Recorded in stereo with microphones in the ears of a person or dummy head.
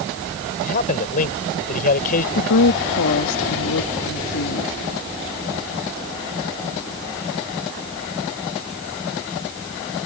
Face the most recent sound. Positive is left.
turn(degrees=70)  # may be behind; listen again after turning